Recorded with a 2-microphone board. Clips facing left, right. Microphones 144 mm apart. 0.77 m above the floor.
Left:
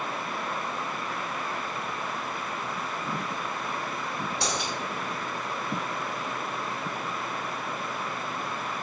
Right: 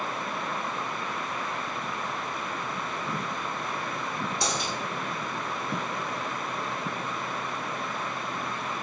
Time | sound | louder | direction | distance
4.4 | a dropped coin | even | 65° left (ahead or behind) | 1.4 m